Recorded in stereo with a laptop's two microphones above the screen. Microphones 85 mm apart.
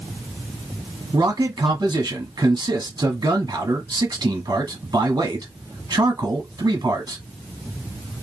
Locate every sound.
1.1 s a man speaking: 55° right (ahead or behind), 1.3 m